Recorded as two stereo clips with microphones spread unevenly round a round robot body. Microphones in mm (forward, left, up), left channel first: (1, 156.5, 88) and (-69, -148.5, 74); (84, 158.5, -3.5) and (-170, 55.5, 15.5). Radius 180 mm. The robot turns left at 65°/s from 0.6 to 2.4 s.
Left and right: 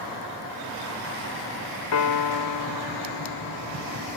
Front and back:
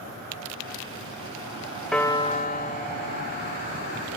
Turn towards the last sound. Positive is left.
turn(degrees=80)